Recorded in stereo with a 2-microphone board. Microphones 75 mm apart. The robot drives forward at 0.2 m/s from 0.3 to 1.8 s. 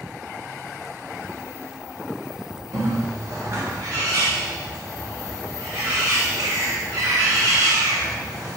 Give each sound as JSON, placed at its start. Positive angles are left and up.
{"t": 2.7, "sound": "a bird", "side_deg": -55, "distance_m": 0.7}